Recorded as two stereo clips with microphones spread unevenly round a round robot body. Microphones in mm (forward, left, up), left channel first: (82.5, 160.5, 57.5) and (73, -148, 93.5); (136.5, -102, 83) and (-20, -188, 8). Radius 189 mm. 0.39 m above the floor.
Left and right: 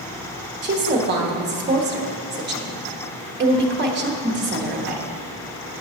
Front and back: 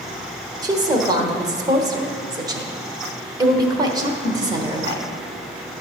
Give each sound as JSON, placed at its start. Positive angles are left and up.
{"t": 0.6, "sound": "a woman speaking", "azimuth_deg": -140, "distance_m": 1.0}